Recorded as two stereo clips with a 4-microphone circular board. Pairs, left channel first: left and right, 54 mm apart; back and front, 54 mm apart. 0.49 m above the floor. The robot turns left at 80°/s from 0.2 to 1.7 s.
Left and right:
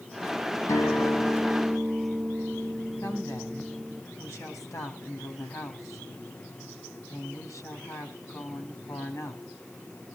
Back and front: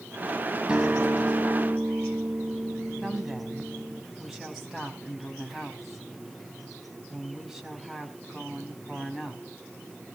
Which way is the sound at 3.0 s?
85° left.